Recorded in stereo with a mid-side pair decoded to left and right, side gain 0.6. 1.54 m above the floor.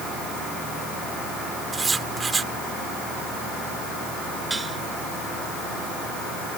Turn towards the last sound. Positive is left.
turn(degrees=-15)